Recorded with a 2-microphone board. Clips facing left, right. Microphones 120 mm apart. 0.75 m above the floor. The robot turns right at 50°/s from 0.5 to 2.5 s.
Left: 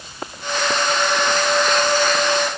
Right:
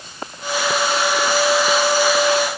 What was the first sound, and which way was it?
Only background noise.